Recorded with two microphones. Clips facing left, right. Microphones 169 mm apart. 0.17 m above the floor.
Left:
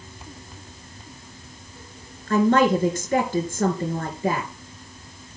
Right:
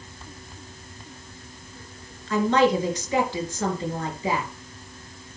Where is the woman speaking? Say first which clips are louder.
Left 2 dB; 50° left (ahead or behind), 3 m.